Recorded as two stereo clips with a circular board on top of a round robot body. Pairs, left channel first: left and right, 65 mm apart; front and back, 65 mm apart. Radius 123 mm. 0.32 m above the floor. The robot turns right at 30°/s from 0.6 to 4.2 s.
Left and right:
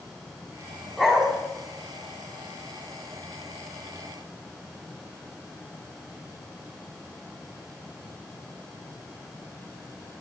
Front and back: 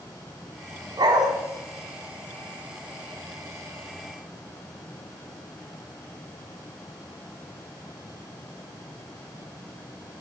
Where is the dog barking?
175° left, 1.6 m; by 1.3 s 175° right, 1.6 m.